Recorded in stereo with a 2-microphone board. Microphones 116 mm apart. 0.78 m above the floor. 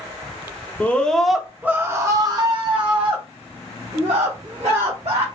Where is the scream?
15° left (ahead or behind), 0.8 m; by 5.2 s 65° right (ahead or behind), 2 m.